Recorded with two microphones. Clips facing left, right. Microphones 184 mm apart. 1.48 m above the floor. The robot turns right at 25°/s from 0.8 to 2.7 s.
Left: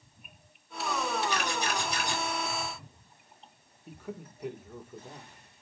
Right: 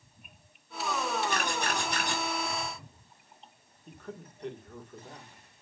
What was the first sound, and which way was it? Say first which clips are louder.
A camera shutter: even; 55° right (ahead or behind).